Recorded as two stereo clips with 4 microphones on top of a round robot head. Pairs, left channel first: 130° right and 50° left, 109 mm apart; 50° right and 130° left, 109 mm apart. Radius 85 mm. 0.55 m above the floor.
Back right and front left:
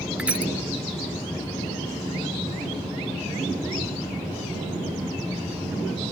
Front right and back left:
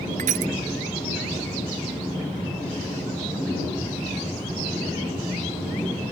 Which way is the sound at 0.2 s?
130° left.